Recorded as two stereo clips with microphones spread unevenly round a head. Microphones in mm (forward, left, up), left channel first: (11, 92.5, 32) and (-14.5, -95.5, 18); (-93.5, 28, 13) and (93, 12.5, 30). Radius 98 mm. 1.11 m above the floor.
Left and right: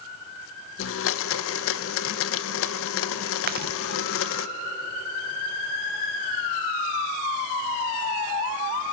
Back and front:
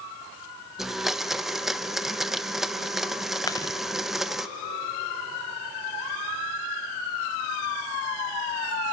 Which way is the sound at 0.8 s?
85° left.